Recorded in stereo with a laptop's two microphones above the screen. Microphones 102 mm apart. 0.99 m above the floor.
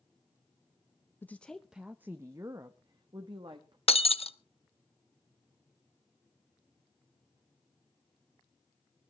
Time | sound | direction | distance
1.2 | a woman speaking | 20° left (ahead or behind) | 0.6 m
3.9 | breaking glass | 75° left (ahead or behind) | 0.6 m